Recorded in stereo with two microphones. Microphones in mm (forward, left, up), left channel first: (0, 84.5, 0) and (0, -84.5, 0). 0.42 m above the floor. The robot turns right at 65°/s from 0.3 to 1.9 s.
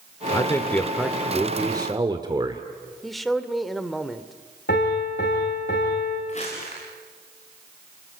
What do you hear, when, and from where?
0.3 s a man speaking: 135° left, 1.3 m; by 2.6 s 125° right, 1.3 m
3.0 s a man speaking: centre (ahead or behind), 1.3 m
4.7 s a piano: 85° left, 7.5 m
6.3 s crumpling: 45° left (ahead or behind), 7.5 m